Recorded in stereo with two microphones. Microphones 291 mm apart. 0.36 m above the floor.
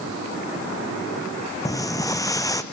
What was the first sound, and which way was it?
Footsteps, 10° left (ahead or behind).